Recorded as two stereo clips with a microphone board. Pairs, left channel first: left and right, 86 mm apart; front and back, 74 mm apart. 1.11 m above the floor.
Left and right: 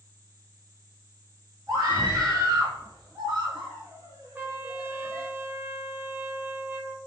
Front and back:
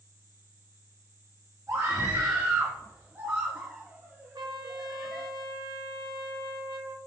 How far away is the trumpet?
About 1.0 m.